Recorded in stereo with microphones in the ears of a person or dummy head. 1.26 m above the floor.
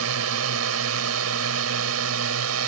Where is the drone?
75° right (ahead or behind); by 2.7 s 80° right.